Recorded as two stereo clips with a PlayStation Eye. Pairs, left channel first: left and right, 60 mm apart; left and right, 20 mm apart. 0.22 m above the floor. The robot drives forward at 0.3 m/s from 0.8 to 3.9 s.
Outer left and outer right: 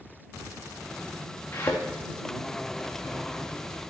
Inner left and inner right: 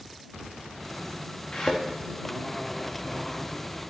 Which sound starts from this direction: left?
A thud, at 1.5 s.